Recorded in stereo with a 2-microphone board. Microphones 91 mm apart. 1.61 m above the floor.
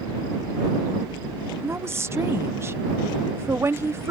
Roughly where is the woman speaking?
Right.